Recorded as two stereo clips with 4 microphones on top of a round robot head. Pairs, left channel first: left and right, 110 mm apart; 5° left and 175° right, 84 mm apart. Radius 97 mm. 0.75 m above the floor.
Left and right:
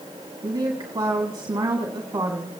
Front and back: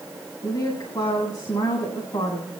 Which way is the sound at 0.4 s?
35° right.